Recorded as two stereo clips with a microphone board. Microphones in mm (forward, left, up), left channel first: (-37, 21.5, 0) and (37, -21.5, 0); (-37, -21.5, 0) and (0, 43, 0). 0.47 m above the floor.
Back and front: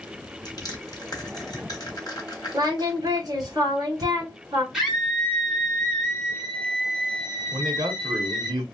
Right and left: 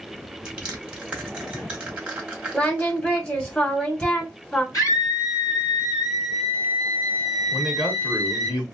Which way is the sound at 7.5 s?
30° right.